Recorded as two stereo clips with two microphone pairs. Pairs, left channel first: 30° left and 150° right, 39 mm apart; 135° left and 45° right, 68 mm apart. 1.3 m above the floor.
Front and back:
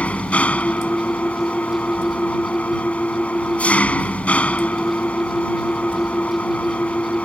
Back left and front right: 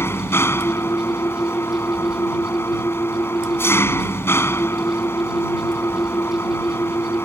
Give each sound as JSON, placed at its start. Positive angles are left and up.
{"t": 0.0, "sound": "an engine running", "azimuth_deg": 80}